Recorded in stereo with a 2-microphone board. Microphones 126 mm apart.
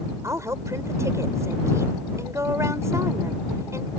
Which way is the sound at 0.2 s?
25° right (ahead or behind).